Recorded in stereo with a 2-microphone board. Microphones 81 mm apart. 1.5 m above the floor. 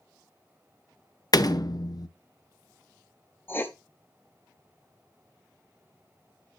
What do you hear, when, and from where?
1.3 s a door slam: 50° left (ahead or behind), 0.5 m
3.5 s writing: 25° left (ahead or behind), 0.8 m